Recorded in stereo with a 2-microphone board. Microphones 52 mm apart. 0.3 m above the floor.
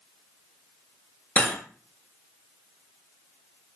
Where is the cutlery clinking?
35° left (ahead or behind), 0.6 m.